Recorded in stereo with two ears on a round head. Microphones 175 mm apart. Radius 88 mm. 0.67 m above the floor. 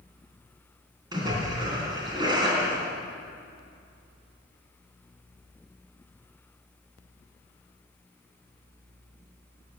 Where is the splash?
25° right (ahead or behind), 3.5 m.